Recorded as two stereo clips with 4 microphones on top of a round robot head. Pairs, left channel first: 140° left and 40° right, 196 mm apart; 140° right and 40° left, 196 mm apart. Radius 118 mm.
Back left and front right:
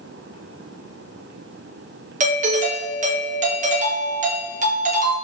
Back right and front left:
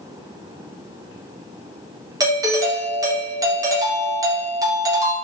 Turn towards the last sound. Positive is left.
turn(degrees=-25)